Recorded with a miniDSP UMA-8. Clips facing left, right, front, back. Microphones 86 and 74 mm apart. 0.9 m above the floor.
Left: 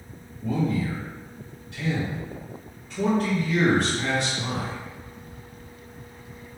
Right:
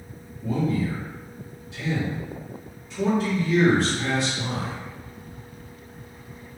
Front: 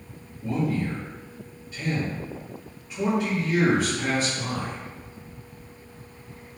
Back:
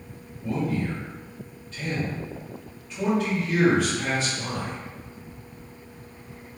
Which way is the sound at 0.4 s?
80° left.